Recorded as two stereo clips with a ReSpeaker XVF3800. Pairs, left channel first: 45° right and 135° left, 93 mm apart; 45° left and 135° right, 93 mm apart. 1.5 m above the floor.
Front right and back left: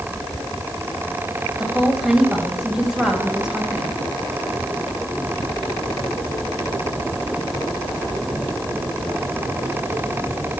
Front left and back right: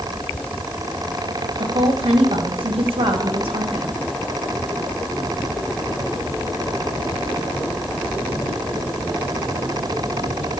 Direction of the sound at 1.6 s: 145° right.